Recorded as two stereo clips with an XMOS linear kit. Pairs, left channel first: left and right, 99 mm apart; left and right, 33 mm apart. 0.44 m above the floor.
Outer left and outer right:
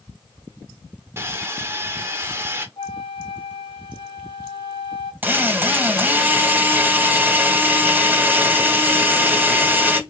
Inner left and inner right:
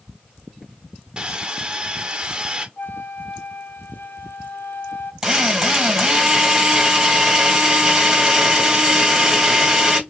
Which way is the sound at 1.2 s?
25° right (ahead or behind).